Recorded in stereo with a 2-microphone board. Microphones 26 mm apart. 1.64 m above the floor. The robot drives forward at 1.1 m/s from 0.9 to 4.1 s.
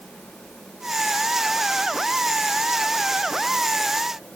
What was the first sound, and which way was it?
Only background noise.